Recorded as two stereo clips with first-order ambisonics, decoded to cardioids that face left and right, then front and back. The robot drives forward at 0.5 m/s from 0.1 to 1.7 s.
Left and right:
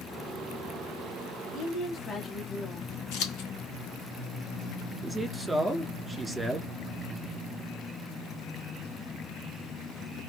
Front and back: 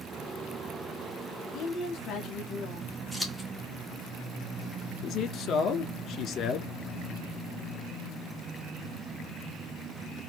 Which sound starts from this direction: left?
Scissors, at 3.1 s.